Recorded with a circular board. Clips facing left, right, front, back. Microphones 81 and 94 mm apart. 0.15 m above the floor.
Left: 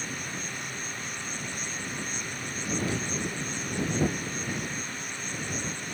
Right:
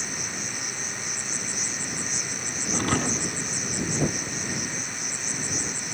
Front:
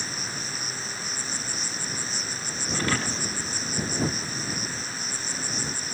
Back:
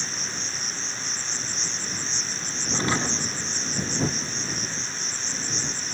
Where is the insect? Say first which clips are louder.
Right 1 dB, even; 85° right.